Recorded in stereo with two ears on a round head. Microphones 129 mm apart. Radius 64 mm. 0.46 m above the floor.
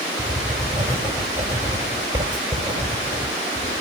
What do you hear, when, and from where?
0.2 s writing: 35° right (ahead or behind), 4.5 m